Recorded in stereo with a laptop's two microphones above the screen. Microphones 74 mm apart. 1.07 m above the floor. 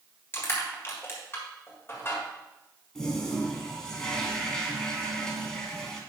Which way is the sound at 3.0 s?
10° left (ahead or behind).